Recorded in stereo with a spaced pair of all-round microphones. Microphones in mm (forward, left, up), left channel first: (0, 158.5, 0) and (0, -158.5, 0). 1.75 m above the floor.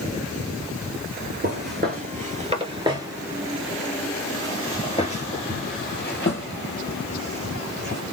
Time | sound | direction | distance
1.4 | footsteps | 35° right (ahead or behind) | 2 m